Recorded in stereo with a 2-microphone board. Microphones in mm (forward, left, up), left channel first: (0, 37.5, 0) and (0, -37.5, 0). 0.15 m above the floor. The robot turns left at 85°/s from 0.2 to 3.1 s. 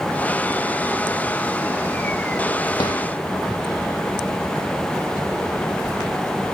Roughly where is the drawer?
Left.